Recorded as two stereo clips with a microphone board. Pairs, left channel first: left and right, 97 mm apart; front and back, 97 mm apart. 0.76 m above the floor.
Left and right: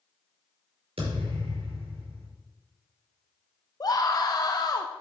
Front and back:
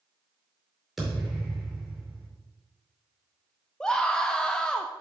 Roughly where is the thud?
Right.